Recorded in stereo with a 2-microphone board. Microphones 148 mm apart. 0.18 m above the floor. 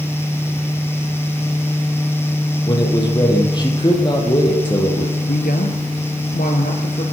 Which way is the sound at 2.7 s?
30° left (ahead or behind).